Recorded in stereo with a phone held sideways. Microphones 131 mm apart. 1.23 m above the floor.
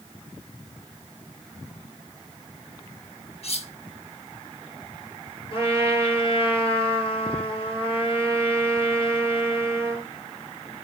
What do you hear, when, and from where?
3.4 s cutlery clinking: 55° left (ahead or behind), 1.0 m
5.5 s a trumpet: 45° left (ahead or behind), 7.5 m